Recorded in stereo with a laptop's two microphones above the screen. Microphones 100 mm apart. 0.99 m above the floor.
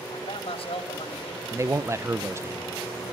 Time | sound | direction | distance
0.1 | a man speaking | 65° left (ahead or behind) | 3 m
1.5 | a man speaking | 30° right (ahead or behind) | 0.5 m